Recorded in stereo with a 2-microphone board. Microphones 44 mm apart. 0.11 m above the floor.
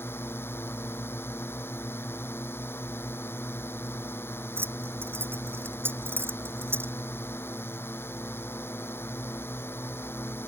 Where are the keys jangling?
55° right (ahead or behind).